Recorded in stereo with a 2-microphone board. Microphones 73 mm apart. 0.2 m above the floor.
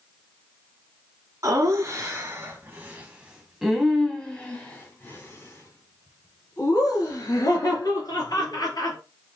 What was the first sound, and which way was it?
Laughter, 45° right (ahead or behind).